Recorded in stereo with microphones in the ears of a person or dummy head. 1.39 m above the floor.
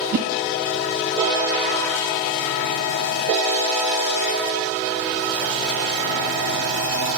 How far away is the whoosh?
About 1.9 m.